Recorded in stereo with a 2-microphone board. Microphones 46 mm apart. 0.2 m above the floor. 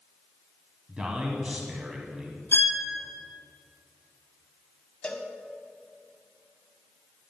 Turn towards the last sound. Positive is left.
turn(degrees=20)  # may be behind; listen again after turning